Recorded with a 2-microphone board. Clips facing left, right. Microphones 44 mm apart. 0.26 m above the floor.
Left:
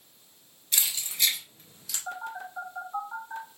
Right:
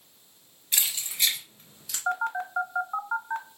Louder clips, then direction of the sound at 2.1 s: Right 9 dB; 65° right (ahead or behind).